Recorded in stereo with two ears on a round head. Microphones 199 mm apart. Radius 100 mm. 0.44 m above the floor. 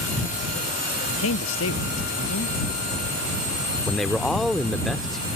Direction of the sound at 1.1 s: 75° left (ahead or behind).